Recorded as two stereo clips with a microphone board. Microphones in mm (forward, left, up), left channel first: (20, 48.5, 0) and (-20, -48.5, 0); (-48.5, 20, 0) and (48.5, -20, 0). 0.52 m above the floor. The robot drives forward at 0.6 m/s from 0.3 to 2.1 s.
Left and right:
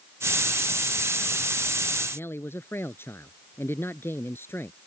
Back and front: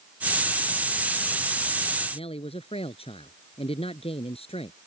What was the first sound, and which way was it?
A man speaking, 135° left.